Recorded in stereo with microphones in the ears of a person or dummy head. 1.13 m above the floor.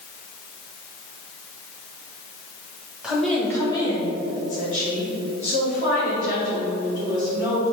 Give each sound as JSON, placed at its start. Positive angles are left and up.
{"t": 3.0, "sound": "a woman speaking", "side_deg": -5, "distance_m": 1.1}